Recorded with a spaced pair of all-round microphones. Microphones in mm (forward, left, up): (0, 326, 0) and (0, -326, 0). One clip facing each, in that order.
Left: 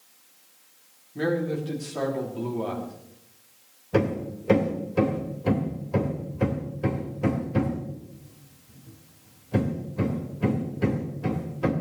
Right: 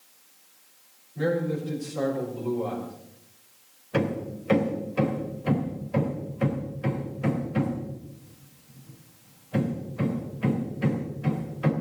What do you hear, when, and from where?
1.1 s a man speaking: 85° left, 3.5 m
3.9 s hammering: 65° left (ahead or behind), 3 m